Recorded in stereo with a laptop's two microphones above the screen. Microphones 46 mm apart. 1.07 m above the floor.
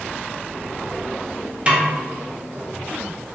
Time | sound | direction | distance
1.7 | a snare drum | 25° right (ahead or behind) | 0.6 m